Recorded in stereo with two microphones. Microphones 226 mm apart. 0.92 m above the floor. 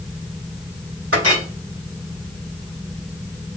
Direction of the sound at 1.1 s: 80° right.